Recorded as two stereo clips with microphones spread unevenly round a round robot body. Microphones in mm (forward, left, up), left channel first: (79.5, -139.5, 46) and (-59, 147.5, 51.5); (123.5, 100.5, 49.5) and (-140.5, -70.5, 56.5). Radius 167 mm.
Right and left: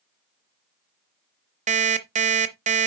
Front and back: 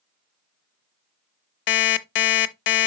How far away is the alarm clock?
About 0.7 m.